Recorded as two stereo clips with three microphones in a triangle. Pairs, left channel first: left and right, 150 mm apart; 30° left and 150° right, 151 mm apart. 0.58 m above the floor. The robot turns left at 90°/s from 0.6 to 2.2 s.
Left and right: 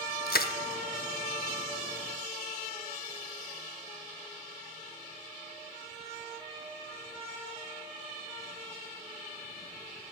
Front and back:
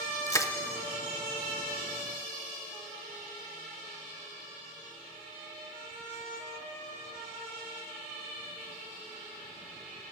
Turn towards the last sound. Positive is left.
turn(degrees=-45)